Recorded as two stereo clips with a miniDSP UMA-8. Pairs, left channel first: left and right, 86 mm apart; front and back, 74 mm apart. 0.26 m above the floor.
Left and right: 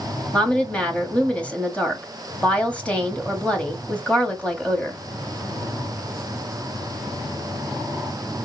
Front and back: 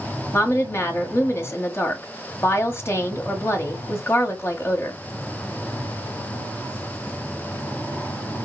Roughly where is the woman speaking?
Ahead left.